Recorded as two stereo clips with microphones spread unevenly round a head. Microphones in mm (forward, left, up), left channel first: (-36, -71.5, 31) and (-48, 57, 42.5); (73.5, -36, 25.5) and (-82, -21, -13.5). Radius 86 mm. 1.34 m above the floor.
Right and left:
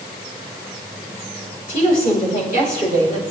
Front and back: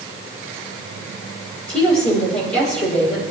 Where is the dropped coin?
No dropped coin in this recording.